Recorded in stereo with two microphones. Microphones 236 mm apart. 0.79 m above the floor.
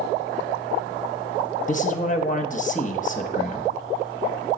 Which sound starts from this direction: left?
A man speaking, at 1.7 s.